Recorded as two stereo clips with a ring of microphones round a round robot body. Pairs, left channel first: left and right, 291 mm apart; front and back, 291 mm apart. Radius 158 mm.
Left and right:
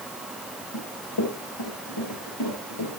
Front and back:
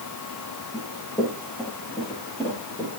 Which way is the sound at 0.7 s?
85° left.